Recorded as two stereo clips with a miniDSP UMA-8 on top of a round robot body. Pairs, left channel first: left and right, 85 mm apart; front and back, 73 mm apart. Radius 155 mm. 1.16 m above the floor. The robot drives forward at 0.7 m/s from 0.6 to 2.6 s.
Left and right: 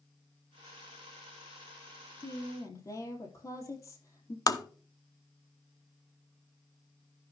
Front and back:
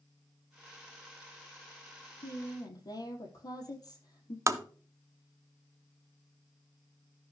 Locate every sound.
2.2 s a woman speaking: 40° left, 3.5 m
4.5 s tapping: 135° left, 0.9 m